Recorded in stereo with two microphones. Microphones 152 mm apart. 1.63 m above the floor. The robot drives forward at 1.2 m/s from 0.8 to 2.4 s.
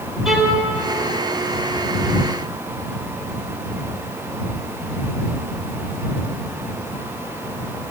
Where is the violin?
Centre (ahead or behind), 3 m.